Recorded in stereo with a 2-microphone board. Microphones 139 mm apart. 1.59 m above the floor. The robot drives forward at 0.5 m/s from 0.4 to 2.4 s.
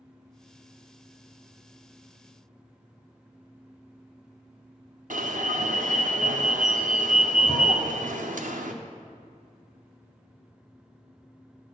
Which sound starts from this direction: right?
An alarm, at 5.1 s.